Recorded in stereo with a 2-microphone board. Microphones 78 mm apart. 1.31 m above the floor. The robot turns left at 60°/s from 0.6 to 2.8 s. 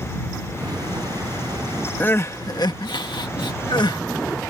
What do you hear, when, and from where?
2.0 s crying: 160° left; by 4.0 s 110° left